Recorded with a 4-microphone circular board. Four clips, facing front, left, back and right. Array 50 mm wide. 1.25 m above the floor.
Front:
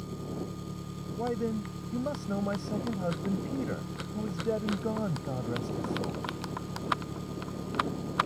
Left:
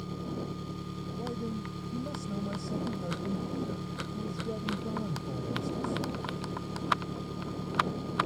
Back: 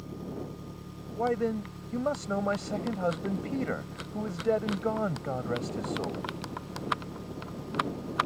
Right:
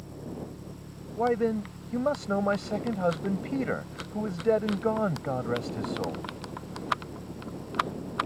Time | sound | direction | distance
0.0 | an engine running | 75° left | ?
1.2 | a man speaking | 115° right | ?